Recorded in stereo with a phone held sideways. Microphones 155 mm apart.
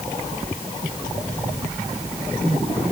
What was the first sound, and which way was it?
Only background noise.